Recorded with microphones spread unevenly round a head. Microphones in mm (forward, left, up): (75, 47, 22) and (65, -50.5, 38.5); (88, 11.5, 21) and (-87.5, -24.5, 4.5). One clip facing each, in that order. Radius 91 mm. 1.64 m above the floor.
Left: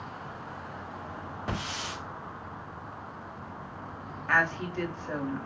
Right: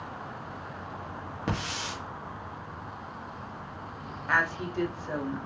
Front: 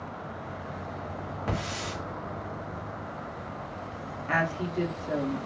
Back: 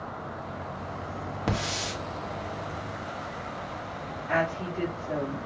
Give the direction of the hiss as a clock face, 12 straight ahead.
4 o'clock.